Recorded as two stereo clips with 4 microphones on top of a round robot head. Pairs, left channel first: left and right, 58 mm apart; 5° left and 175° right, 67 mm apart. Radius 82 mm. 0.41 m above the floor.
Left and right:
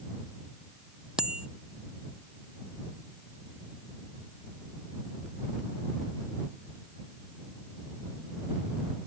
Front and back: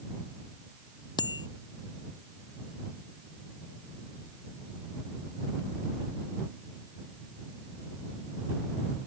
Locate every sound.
1.2 s a bicycle bell: 10° right